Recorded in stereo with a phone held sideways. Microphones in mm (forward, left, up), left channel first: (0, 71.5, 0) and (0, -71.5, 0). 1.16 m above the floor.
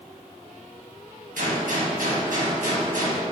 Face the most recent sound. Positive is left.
turn(degrees=-70)  # may be behind; listen again after turning